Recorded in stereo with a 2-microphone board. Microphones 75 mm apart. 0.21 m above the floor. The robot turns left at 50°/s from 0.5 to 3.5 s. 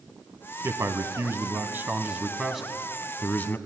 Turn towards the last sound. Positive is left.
turn(degrees=140)